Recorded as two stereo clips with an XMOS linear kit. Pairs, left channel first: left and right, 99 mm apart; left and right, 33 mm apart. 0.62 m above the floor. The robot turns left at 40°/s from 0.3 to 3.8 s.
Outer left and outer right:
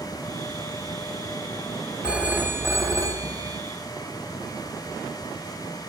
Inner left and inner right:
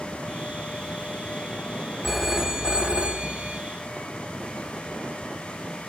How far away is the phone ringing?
About 0.7 m.